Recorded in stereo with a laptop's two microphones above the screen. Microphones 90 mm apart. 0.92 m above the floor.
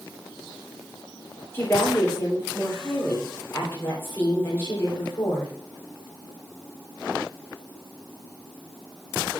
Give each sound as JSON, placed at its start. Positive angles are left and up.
{"t": 1.5, "sound": "a woman speaking", "side_deg": 25, "distance_m": 3.0}